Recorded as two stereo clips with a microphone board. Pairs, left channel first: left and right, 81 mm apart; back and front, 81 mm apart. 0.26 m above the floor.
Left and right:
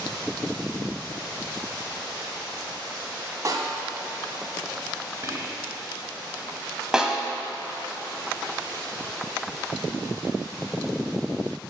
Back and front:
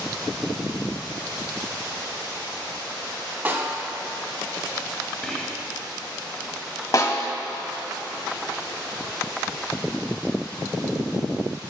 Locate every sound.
3.5 s a snare drum: 60° right, 1.8 m
5.2 s whispering: 100° right, 1.1 m
6.9 s a snare drum: 170° right, 1.1 m